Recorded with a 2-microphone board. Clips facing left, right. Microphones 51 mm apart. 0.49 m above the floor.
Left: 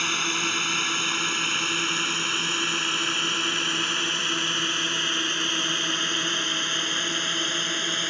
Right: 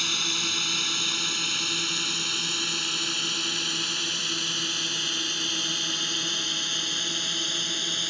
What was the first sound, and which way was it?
A drone, 30° left (ahead or behind).